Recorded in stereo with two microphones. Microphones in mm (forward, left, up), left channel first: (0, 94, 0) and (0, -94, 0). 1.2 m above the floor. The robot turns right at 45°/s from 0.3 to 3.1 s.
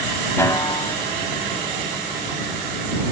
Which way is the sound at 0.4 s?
15° left (ahead or behind).